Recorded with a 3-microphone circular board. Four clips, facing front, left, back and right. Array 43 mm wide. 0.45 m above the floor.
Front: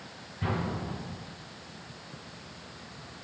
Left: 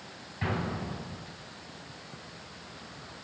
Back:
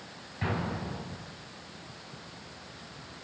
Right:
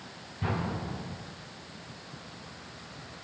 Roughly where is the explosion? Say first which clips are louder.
Even, even; behind left.